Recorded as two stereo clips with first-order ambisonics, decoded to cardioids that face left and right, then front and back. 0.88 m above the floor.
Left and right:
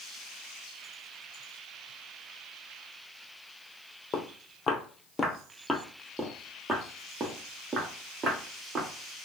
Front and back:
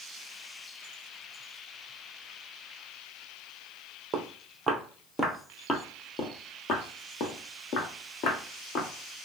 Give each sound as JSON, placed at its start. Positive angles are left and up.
{"t": 4.1, "sound": "footsteps", "azimuth_deg": 130, "distance_m": 1.1}